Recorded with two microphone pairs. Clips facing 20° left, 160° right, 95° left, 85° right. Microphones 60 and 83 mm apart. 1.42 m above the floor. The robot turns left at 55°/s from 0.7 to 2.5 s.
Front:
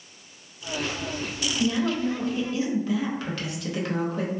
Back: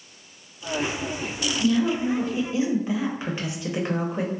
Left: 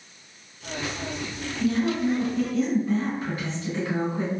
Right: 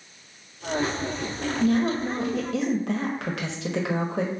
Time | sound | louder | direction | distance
1.6 | a woman speaking | back 3 dB, even | 40° right | 0.6 m